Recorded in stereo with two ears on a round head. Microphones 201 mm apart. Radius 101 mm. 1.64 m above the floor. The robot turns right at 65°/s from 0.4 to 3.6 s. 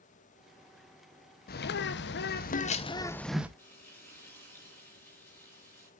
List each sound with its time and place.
1.5 s a bird: 60° left, 0.8 m; by 3.5 s 170° right, 0.8 m
3.6 s frying: 10° left (ahead or behind), 4.5 m